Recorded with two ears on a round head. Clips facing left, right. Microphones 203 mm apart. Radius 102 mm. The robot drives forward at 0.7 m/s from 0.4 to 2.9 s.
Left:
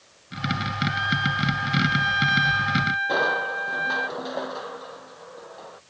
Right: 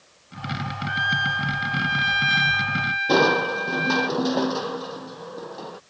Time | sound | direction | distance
0.9 | a trumpet | 25° right (ahead or behind) | ?
3.1 | crushing | 55° right (ahead or behind) | ?